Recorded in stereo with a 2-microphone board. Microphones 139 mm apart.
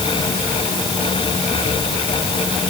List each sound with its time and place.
Only background noise.